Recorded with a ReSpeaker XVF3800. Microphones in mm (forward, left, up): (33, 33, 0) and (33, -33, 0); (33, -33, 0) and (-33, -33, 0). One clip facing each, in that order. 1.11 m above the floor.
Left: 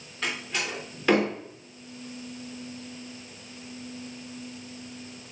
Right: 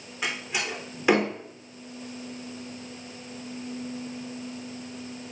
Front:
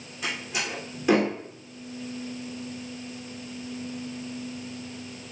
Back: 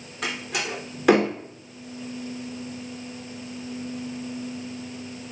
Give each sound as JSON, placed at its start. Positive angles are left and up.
{"t": 0.2, "sound": "a door slam", "azimuth_deg": -165, "distance_m": 3.0}